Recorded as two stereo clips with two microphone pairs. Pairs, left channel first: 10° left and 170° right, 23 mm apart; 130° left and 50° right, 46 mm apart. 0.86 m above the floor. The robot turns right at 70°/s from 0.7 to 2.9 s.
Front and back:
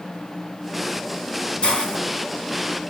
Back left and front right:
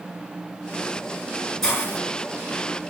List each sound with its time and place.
1.6 s a hiss: 50° left, 2 m; by 2.0 s 75° left, 2 m